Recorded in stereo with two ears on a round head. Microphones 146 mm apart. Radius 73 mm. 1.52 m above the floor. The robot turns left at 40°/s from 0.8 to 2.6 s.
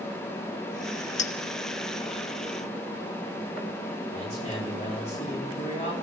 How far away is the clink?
About 1.7 m.